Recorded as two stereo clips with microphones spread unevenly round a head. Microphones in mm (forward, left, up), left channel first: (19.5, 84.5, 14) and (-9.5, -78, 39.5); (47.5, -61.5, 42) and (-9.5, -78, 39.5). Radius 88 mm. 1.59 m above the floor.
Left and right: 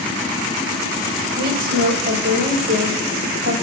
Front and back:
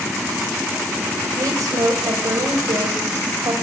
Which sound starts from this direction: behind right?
A woman speaking, at 1.4 s.